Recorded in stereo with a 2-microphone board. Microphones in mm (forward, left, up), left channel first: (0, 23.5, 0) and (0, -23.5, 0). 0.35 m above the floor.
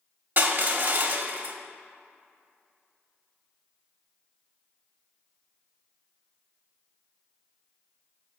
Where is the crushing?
45° right (ahead or behind), 1.0 m.